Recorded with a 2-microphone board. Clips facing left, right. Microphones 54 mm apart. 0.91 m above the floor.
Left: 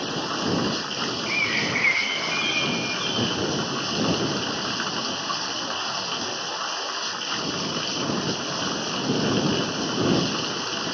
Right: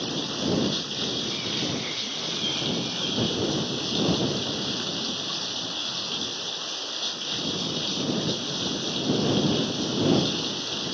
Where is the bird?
75° left (ahead or behind).